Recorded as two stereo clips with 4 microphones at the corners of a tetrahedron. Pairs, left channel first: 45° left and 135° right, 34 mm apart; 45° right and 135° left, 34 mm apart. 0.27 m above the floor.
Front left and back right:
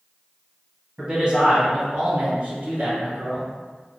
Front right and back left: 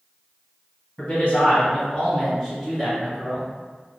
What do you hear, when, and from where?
1.0 s a man speaking: 75° right, 1.4 m; by 3.5 s 155° right, 1.6 m